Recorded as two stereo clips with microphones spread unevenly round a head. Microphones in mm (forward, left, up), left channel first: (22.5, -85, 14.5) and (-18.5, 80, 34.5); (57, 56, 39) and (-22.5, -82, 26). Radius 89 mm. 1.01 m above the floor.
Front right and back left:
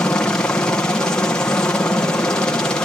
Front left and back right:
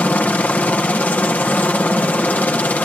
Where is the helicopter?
15° right.